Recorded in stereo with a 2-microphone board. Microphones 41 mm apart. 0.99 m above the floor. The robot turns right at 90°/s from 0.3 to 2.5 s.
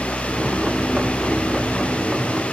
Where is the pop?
No pop in this recording.